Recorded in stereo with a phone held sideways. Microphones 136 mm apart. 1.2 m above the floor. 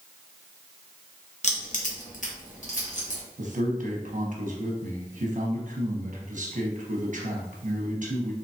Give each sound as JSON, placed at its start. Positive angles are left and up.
{"t": 1.4, "sound": "keys jangling", "side_deg": 55, "distance_m": 0.7}
{"t": 3.4, "sound": "a man speaking", "side_deg": -75, "distance_m": 1.1}